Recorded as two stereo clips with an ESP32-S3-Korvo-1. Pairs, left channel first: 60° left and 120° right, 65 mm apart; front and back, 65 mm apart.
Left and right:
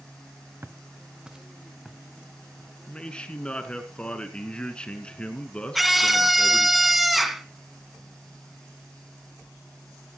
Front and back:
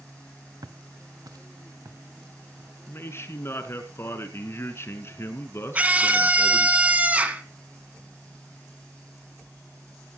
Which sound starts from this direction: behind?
Footsteps, at 0.6 s.